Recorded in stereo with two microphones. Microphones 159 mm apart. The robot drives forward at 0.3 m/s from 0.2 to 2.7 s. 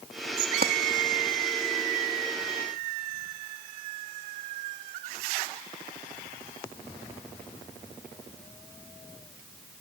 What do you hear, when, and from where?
0.6 s a clap: 70° right (ahead or behind)